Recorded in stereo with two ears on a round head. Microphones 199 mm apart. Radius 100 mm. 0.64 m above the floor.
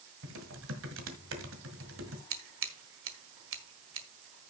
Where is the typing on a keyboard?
60° right (ahead or behind), 1.7 m.